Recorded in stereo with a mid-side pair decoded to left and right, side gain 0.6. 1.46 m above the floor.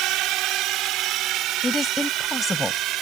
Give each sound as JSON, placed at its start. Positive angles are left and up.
{"t": 0.0, "sound": "a drone", "azimuth_deg": -65}
{"t": 1.6, "sound": "a woman speaking", "azimuth_deg": 15}